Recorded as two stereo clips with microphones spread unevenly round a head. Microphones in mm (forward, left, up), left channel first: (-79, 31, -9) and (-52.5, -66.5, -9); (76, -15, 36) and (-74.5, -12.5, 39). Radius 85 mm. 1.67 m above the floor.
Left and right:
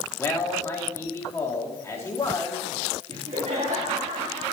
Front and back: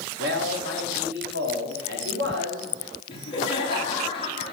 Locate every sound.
0.2 s a man speaking: 170° left, 3.5 m
3.1 s laughter: 55° right, 3.5 m